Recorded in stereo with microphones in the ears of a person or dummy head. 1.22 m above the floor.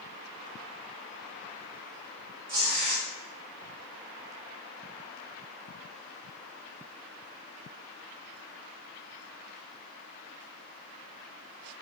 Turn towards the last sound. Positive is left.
turn(degrees=-70)  # may be behind; listen again after turning